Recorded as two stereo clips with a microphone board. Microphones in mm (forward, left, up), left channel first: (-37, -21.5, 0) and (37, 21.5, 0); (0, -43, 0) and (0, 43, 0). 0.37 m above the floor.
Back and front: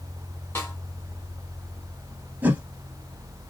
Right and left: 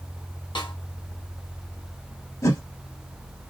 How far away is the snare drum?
About 2 m.